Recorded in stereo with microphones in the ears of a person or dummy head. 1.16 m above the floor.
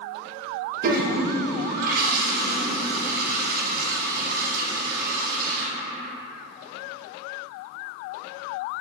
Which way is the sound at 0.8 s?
55° right (ahead or behind).